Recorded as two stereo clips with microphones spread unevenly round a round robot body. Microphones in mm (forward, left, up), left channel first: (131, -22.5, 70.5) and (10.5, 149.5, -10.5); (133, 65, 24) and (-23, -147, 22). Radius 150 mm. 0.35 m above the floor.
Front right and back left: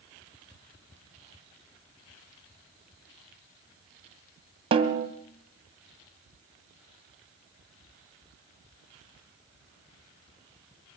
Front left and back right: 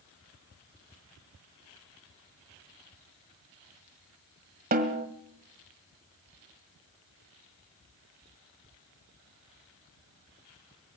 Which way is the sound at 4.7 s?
175° left.